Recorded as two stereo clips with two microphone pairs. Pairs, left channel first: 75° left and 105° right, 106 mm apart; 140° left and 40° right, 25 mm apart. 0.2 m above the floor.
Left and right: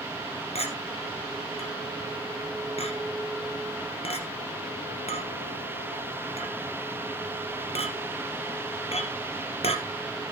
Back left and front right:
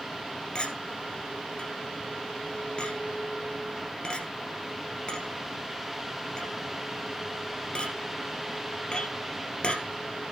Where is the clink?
90° left, 2.5 m.